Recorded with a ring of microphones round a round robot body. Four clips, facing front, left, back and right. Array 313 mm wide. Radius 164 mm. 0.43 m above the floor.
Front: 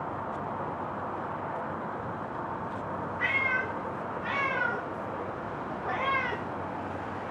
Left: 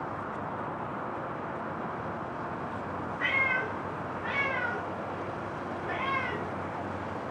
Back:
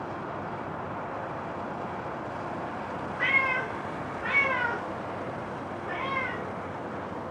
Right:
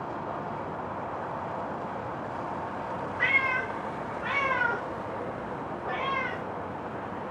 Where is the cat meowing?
120° right, 1.5 m; by 6.4 s 5° left, 0.7 m.